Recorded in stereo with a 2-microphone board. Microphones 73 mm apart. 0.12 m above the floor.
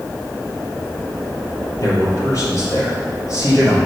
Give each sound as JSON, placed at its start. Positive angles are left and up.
{"t": 1.8, "sound": "a man speaking", "side_deg": 50, "distance_m": 2.5}